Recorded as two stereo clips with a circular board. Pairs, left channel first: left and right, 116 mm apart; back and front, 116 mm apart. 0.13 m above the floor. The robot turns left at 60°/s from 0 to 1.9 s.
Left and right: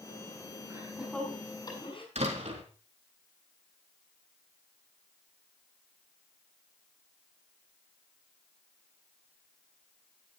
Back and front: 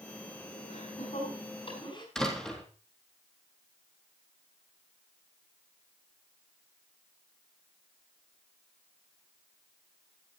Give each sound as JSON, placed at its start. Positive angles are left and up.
{"t": 0.7, "sound": "laughter", "azimuth_deg": -155, "distance_m": 7.5}
{"t": 2.1, "sound": "a door slam", "azimuth_deg": -95, "distance_m": 3.5}